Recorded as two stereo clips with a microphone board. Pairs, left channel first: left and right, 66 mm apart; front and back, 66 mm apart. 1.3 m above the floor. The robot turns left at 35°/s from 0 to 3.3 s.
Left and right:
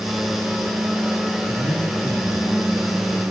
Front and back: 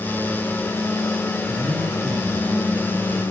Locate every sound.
1.5 s a man speaking: 135° left, 5 m; by 3.2 s 75° left, 5 m